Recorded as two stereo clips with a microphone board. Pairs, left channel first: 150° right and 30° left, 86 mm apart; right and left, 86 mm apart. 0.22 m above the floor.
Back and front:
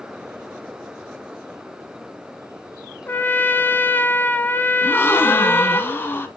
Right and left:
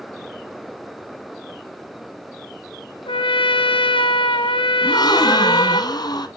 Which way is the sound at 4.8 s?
95° right.